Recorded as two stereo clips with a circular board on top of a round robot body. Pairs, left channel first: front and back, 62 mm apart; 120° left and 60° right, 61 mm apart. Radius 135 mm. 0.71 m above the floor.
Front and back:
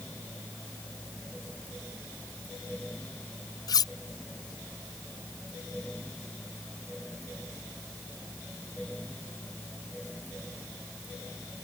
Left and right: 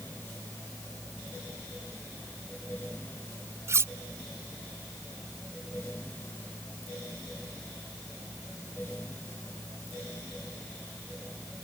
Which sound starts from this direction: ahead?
Cutlery clinking, at 3.7 s.